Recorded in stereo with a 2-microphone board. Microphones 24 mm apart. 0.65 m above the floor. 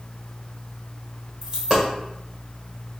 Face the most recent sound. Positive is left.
turn(degrees=-35)  # may be behind; listen again after turning